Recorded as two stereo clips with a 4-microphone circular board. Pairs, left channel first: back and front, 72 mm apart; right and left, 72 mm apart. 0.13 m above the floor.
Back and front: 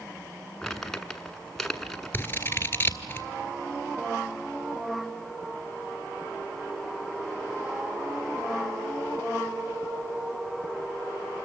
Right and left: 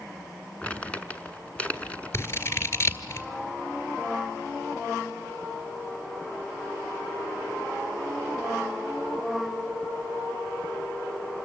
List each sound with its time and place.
0.6 s crumpling: 105° right, 1.0 m
2.1 s scissors: 130° right, 1.3 m